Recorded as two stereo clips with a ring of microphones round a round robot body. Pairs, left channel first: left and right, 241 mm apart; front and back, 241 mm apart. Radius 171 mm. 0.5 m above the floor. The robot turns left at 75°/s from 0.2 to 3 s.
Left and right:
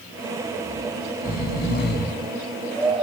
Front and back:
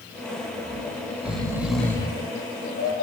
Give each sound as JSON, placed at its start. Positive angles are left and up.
{"t": 0.6, "sound": "snoring", "azimuth_deg": 170, "distance_m": 1.4}